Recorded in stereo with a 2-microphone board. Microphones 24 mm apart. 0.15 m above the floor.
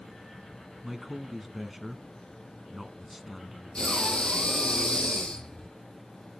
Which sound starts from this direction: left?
Breathing, at 3.8 s.